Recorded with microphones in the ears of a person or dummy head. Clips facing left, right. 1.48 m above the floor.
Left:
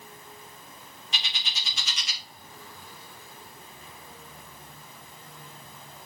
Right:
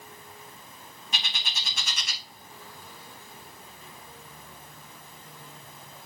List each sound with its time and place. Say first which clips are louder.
1.1 s a bird: right 2 dB; 40° right (ahead or behind), 0.7 m